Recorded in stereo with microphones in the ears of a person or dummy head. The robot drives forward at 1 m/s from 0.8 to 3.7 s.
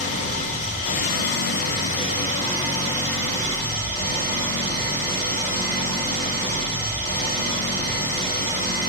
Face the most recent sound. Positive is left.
turn(degrees=15)  # may be behind; listen again after turning